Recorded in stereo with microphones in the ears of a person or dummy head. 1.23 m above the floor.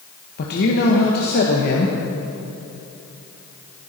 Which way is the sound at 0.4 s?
50° left (ahead or behind).